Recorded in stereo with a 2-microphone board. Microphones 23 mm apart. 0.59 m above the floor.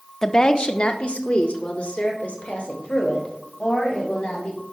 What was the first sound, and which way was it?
A woman speaking, 20° left (ahead or behind).